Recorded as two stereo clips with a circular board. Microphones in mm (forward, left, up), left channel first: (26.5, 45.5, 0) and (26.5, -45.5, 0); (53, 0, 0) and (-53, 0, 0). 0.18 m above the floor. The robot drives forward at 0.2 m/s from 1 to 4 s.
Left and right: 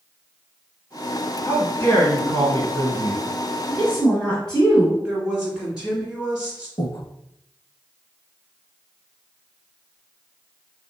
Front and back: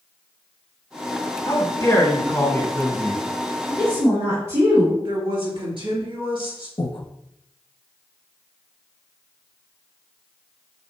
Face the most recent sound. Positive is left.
turn(degrees=40)